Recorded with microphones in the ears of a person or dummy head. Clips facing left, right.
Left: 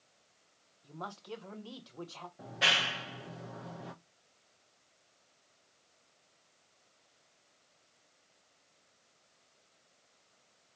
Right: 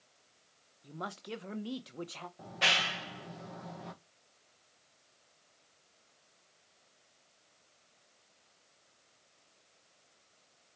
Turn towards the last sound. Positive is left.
turn(degrees=5)  # may be behind; listen again after turning